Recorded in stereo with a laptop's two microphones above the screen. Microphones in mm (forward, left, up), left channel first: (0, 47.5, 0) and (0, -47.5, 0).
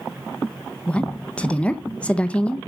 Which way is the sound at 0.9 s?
15° left (ahead or behind).